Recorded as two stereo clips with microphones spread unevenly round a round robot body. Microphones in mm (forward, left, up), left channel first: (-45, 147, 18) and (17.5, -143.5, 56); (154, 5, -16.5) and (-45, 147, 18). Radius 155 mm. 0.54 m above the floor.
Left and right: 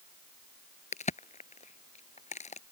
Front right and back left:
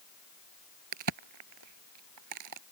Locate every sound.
0.9 s a crack: 170° left